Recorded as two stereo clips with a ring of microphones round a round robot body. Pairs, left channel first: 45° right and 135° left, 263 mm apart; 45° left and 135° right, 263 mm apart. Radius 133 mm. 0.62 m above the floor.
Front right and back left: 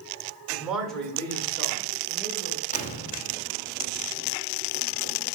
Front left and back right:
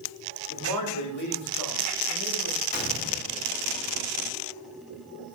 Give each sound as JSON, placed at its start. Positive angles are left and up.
{"t": 0.5, "sound": "a man speaking", "azimuth_deg": 50, "distance_m": 1.8}
{"t": 2.7, "sound": "a gunshot", "azimuth_deg": 5, "distance_m": 1.2}